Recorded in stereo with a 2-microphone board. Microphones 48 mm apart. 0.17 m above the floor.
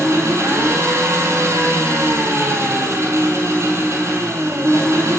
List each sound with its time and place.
0.0 s an engine running: 70° right (ahead or behind), 2.5 m